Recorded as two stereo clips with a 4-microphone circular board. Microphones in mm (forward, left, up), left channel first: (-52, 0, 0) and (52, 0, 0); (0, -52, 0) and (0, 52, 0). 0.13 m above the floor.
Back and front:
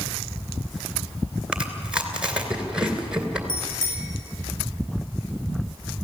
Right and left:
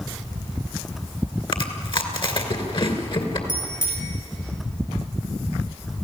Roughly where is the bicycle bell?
Behind left.